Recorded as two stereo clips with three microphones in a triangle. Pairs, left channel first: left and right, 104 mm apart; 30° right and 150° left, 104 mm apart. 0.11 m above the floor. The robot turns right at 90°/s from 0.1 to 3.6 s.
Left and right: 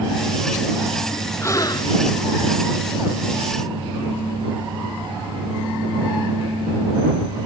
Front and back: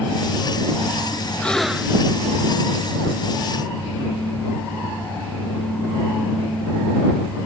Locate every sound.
1.4 s a gasp: 40° left; by 2.1 s 105° left